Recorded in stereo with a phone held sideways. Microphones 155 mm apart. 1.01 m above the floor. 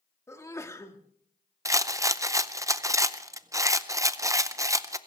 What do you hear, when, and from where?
0.3 s a sneeze: 20° left (ahead or behind), 1.7 m
1.6 s a rattle: 20° right (ahead or behind), 0.5 m